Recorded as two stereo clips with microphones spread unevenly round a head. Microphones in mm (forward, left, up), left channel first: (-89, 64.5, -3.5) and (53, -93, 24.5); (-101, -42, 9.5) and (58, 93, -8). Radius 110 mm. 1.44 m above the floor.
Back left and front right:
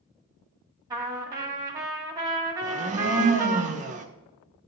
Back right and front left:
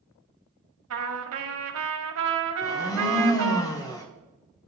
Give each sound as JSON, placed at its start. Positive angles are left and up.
{"t": 0.9, "sound": "a trumpet", "azimuth_deg": 30, "distance_m": 1.0}
{"t": 2.6, "sound": "a blender", "azimuth_deg": -75, "distance_m": 0.6}